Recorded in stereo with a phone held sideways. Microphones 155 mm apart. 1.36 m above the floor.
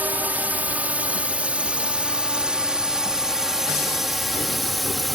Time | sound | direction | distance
0.0 | a drone | 10° right (ahead or behind) | ?